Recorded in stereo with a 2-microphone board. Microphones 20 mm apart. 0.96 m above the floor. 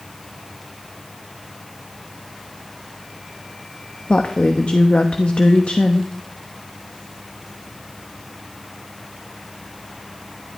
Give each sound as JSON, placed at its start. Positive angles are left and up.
{"t": 4.1, "sound": "a woman speaking", "side_deg": 60, "distance_m": 1.1}